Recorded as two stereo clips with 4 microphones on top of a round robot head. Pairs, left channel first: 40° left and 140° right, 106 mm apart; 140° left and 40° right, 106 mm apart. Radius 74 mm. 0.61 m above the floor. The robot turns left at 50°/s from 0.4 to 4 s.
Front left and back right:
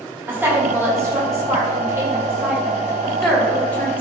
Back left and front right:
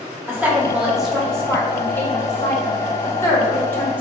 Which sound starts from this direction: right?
A woman speaking, at 0.3 s.